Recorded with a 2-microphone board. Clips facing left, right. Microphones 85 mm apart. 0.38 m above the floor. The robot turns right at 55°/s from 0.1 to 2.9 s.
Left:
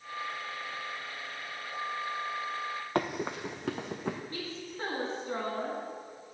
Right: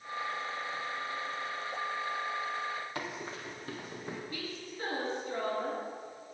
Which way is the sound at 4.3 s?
40° left (ahead or behind).